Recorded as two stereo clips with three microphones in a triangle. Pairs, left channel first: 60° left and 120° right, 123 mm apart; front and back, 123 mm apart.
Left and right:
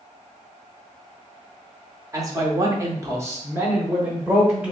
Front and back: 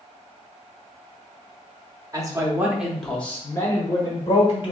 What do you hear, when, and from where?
2.1 s a man speaking: 155° right, 0.8 m; by 4.7 s 40° right, 1.4 m